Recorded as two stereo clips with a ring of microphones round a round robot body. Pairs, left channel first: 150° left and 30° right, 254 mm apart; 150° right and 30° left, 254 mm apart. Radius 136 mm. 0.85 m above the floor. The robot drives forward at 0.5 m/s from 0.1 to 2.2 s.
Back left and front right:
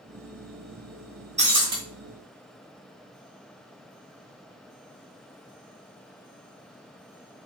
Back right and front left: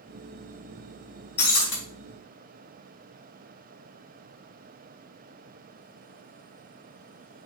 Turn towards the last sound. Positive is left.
turn(degrees=-115)